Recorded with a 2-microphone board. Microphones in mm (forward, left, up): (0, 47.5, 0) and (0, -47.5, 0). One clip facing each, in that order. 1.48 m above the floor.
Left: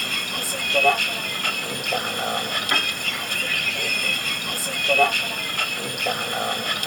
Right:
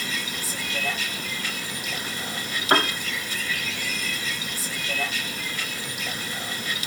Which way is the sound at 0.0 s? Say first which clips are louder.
Left 2 dB; 75° left (ahead or behind).